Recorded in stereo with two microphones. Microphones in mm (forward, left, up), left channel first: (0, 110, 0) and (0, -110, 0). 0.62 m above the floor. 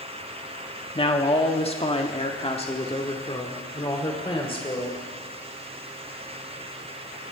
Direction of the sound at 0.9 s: 25° left (ahead or behind).